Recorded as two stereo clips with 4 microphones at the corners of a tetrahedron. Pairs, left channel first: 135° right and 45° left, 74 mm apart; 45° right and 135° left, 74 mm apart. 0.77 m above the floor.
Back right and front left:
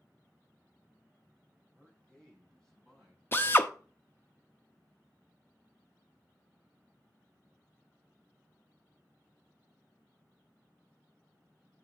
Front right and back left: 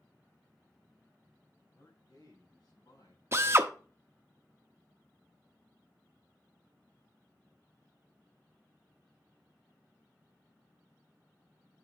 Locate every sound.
1.7 s a man speaking: 55° right, 3 m; by 3.2 s 50° right, 5.5 m
3.3 s a drill: 175° left, 0.6 m